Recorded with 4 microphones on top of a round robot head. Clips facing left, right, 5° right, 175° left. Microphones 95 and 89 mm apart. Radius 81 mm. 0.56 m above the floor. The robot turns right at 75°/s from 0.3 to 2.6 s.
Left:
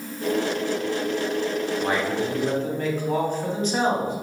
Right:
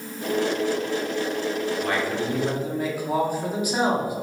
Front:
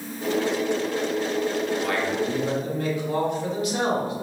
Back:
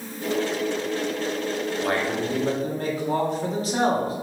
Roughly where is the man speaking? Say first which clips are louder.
Left 1 dB, even; behind left.